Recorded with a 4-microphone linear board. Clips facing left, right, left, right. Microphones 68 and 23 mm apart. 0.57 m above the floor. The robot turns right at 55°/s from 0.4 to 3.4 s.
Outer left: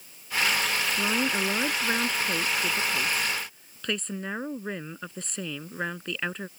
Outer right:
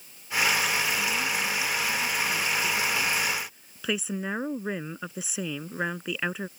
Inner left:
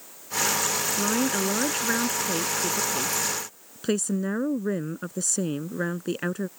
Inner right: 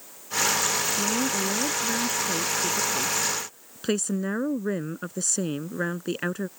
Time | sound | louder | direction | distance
1.0 | a woman speaking | outer left 2 dB, inner left 1 dB | 55° left | ?